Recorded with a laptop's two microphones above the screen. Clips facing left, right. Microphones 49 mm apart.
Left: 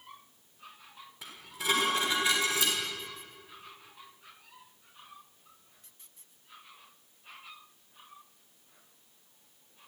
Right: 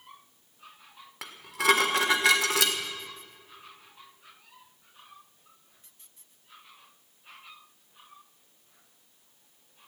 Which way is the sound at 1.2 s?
80° right.